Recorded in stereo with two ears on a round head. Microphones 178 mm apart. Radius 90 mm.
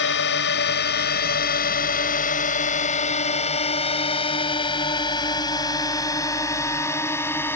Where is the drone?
60° left (ahead or behind); by 7.6 s 10° left (ahead or behind).